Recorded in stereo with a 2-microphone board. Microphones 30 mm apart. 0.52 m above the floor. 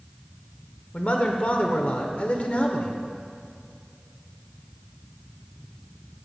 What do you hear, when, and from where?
0.9 s a man speaking: 55° left (ahead or behind), 1.3 m